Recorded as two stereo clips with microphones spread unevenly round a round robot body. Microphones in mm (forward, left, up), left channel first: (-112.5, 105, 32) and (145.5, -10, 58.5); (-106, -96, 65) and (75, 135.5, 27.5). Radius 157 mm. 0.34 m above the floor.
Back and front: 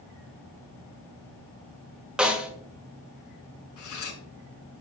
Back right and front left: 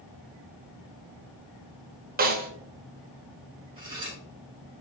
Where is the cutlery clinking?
125° left, 3 m.